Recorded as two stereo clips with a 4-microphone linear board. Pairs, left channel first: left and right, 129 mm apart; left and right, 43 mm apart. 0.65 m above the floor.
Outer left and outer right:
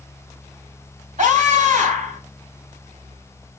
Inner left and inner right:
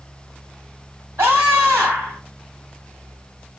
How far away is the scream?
About 3 m.